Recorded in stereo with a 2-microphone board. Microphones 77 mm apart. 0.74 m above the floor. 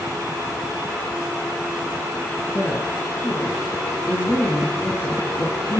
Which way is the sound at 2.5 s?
35° left (ahead or behind).